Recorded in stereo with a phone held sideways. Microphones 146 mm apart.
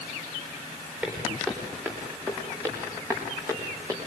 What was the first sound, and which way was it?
Footsteps, 10° right (ahead or behind).